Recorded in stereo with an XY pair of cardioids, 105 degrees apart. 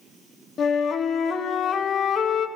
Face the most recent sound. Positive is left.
turn(degrees=55)